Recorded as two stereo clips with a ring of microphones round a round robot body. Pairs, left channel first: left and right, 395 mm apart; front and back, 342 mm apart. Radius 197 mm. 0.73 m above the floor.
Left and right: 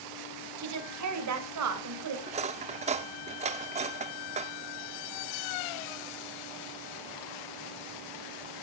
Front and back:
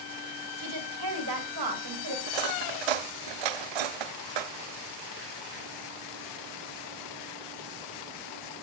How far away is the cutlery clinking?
About 0.7 m.